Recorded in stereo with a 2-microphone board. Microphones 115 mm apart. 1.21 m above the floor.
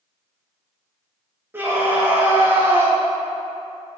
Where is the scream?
20° right (ahead or behind), 1.6 m.